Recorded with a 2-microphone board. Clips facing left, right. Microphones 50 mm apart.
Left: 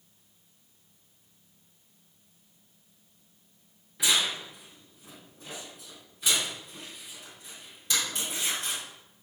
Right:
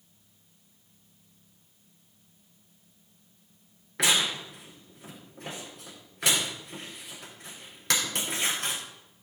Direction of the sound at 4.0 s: 70° right (ahead or behind).